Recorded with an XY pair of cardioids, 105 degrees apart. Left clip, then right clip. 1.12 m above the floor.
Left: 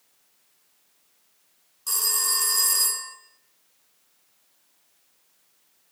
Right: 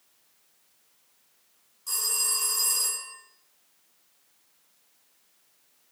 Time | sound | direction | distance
1.9 | a phone ringing | 45° left | 1.7 m